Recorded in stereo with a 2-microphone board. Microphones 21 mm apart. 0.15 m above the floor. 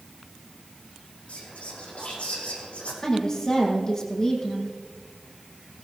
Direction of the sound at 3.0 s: 30° left (ahead or behind).